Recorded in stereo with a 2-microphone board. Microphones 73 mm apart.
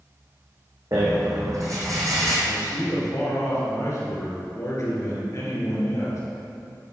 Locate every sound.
0.9 s a rattle: 50° right (ahead or behind), 2.0 m
2.5 s a man speaking: 45° left (ahead or behind), 2.5 m